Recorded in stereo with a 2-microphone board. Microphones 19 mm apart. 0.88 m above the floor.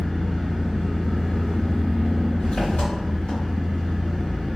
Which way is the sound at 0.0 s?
85° left.